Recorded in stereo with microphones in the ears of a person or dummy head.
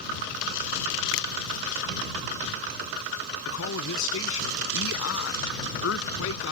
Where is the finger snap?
70° left (ahead or behind).